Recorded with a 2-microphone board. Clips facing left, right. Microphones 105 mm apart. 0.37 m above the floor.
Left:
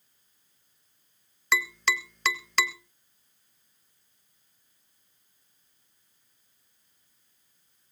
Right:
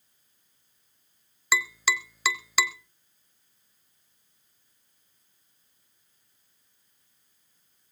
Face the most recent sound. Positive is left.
turn(degrees=-5)  # may be behind; listen again after turning